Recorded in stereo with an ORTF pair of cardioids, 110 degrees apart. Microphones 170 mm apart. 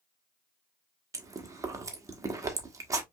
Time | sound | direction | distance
1.1 | chewing | 20° right | 1.1 m